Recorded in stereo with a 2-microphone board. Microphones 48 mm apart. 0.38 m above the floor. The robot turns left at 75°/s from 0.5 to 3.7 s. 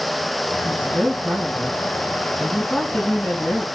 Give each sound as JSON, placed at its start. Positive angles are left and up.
{"t": 0.7, "sound": "a woman speaking", "azimuth_deg": -30, "distance_m": 3.0}